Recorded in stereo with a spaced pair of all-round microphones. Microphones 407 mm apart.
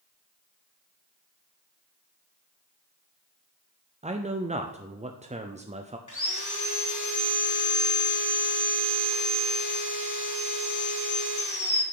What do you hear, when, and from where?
4.0 s a man speaking: 15° right (ahead or behind), 0.5 m
6.1 s sawing: 50° left (ahead or behind), 1.3 m